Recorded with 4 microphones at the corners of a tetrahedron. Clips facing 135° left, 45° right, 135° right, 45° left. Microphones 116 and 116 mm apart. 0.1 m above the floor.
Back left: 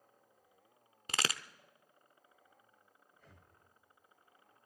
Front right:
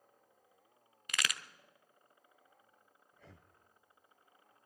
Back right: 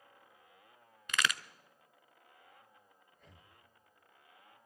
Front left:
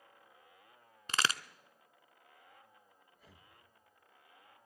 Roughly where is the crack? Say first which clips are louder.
Back left 2 dB, even; left.